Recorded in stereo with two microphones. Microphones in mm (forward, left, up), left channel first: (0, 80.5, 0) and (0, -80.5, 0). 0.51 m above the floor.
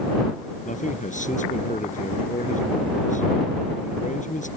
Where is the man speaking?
50° left (ahead or behind).